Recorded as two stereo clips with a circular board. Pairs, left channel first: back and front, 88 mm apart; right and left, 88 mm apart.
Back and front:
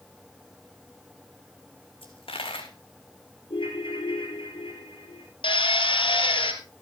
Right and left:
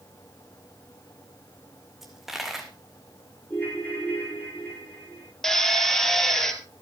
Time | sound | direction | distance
2.0 | a dropped coin | 175° left | 1.8 m
3.5 | a ringtone | 160° right | 4 m
5.4 | a drill | 175° right | 1.9 m